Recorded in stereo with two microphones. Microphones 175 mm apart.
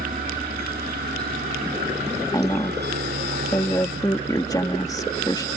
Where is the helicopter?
55° right (ahead or behind); by 5.6 s 70° right (ahead or behind).